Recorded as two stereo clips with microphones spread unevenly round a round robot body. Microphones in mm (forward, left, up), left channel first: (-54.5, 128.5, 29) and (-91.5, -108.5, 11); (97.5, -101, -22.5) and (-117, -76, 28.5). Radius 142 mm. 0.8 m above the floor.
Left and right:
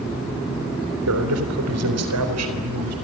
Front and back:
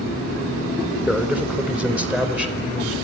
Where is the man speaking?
100° right, 3.5 m.